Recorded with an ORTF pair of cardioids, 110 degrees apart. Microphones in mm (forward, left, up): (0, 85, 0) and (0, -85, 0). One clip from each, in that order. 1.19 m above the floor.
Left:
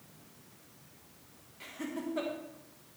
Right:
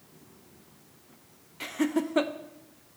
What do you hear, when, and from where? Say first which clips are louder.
1.6 s laughter: right 11 dB; 55° right, 0.8 m